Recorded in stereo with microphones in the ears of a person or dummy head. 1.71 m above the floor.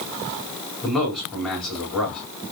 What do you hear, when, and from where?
0.8 s a man speaking: 10° left (ahead or behind), 5 m